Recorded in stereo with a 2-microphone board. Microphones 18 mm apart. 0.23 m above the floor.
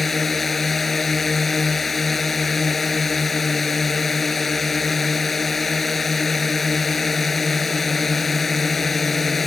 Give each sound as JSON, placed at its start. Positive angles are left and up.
{"t": 0.0, "sound": "a drone", "side_deg": 10}